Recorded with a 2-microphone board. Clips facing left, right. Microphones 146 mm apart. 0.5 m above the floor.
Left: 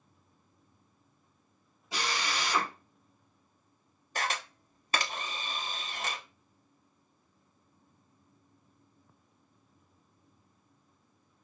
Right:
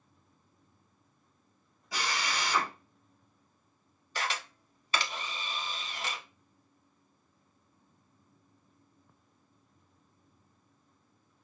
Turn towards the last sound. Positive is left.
turn(degrees=45)  # may be behind; listen again after turning